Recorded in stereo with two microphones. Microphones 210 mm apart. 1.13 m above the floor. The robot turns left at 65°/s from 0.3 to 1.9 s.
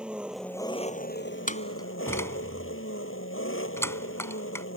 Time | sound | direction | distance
0.0 | an engine running | 175° right | ?
1.5 | a door slam | 40° left (ahead or behind) | ?